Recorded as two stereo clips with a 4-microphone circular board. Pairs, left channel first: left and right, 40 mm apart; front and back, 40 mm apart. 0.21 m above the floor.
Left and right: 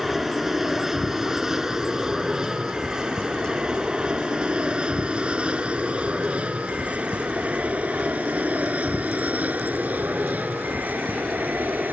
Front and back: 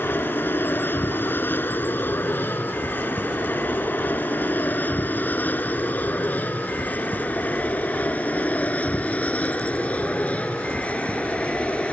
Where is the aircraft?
10° right; by 11.9 s 55° right.